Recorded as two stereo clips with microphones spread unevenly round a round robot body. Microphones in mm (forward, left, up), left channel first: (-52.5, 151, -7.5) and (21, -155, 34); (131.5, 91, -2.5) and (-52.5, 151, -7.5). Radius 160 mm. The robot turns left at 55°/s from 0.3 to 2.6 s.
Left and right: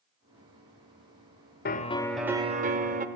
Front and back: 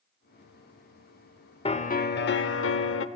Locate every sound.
1.6 s a piano: 45° left, 1.1 m; by 3.1 s 10° right, 1.1 m